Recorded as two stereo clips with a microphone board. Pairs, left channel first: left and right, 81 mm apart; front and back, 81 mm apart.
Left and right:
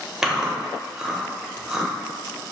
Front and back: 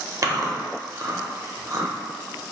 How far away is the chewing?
About 0.5 m.